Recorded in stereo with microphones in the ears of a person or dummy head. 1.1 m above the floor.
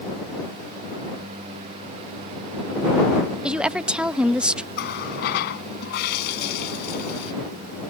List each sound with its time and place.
3.4 s a woman speaking: 5° right (ahead or behind)
4.8 s a running tap: 60° left (ahead or behind)